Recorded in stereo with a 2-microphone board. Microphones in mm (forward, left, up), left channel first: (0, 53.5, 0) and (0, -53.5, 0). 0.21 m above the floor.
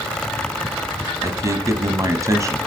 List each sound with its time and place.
1.2 s a man speaking: 30° right (ahead or behind), 1.4 m